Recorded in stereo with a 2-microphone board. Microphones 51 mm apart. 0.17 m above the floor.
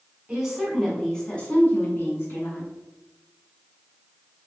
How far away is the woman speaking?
About 1.3 m.